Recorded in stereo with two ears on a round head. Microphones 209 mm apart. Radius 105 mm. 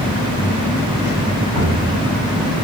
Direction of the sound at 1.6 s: 85° right.